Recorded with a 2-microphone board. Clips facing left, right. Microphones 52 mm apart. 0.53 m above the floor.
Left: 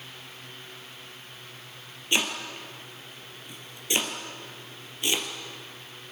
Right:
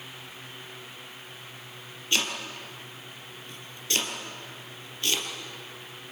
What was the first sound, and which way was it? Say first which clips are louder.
Chopping: left 2 dB; 20° left (ahead or behind).